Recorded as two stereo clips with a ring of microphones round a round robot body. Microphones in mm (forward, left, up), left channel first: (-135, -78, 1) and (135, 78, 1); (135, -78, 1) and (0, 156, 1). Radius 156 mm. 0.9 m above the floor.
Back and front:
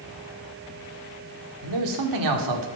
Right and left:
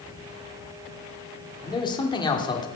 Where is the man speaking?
15° left, 2.5 m.